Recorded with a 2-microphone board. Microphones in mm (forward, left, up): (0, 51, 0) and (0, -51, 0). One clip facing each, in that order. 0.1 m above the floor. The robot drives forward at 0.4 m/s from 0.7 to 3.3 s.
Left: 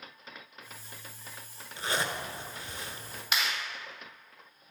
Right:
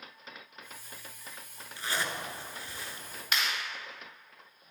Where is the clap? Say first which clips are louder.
Even; 5° left (ahead or behind), 2.5 m.